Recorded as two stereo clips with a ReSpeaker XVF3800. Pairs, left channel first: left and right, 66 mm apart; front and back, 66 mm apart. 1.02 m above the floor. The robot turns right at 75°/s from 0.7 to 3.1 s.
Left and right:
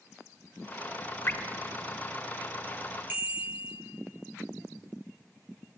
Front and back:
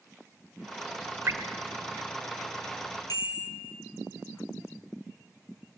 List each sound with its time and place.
1.3 s dripping: 140° left, 1.2 m; by 1.4 s 150° left, 1.2 m
3.1 s a bicycle bell: 30° right, 7.5 m